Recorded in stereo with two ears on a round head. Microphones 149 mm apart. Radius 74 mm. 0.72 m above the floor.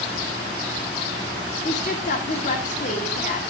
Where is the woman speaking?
45° left (ahead or behind), 2 m.